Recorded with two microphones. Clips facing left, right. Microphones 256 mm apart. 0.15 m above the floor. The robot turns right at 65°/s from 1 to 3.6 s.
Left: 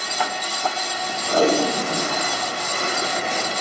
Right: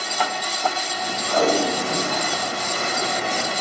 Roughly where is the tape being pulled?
Behind left.